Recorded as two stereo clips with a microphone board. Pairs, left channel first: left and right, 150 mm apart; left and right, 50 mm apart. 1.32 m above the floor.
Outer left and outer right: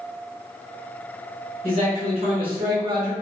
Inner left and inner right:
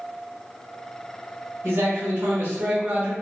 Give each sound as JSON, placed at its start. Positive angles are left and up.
{"t": 1.6, "sound": "a man speaking", "side_deg": -45, "distance_m": 1.6}